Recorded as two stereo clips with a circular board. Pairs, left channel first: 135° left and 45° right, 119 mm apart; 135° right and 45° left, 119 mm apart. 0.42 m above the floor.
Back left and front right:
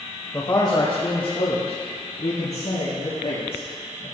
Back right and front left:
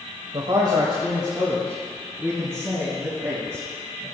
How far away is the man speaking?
About 1.2 m.